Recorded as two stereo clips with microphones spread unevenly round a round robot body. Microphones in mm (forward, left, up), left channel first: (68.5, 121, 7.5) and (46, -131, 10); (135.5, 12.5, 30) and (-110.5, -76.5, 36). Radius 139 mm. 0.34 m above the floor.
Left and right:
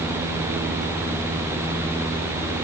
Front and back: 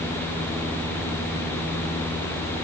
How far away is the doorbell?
I don't hear a doorbell.